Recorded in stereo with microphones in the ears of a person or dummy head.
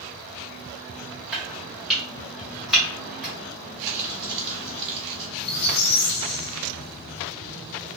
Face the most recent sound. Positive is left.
turn(degrees=50)  # may be behind; listen again after turning